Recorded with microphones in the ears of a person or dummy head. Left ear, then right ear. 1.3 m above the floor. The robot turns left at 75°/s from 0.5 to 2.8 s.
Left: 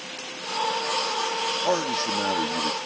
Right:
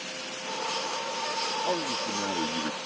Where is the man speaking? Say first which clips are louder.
Left 5 dB; 85° left; by 2.8 s 5° left.